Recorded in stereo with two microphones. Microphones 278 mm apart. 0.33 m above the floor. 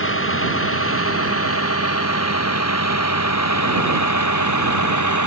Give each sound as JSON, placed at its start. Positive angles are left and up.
{"t": 0.0, "sound": "a vehicle", "side_deg": 50}